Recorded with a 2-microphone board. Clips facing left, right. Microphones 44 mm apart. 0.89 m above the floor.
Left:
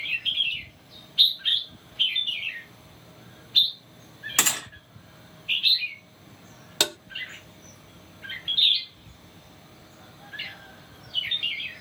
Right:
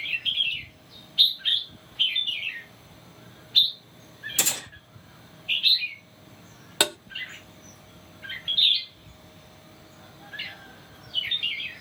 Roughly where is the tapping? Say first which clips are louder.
Right 2 dB; centre.